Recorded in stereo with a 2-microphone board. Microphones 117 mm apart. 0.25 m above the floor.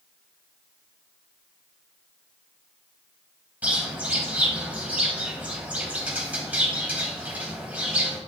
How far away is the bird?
About 1.8 m.